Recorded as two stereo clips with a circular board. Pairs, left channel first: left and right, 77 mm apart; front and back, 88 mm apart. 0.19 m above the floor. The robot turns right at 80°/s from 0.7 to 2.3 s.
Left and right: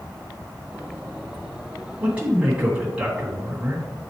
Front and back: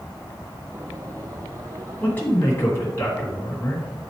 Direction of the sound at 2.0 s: 55° right.